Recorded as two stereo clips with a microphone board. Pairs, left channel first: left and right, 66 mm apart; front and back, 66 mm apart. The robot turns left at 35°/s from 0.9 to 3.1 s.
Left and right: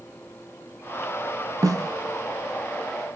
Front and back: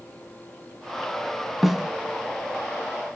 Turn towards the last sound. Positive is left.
turn(degrees=-145)